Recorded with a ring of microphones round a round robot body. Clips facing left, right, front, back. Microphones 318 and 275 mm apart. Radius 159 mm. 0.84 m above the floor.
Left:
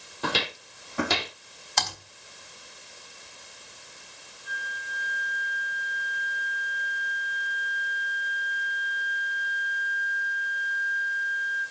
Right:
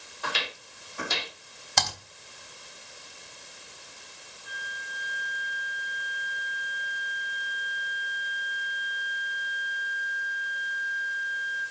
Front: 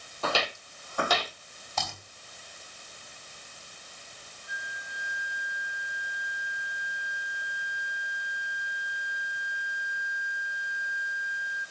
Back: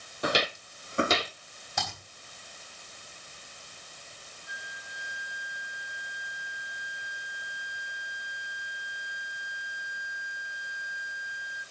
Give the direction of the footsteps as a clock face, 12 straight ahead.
8 o'clock.